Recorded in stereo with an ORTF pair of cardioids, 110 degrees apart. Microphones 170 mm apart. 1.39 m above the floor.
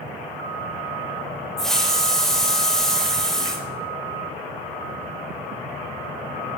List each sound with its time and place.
1.6 s a hiss: 5° left, 3 m